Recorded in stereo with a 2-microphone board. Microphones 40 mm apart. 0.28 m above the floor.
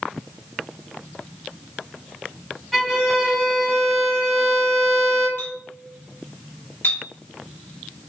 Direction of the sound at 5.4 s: 60° left (ahead or behind).